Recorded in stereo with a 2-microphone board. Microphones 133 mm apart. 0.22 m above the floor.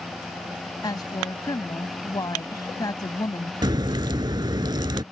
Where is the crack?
35° right (ahead or behind).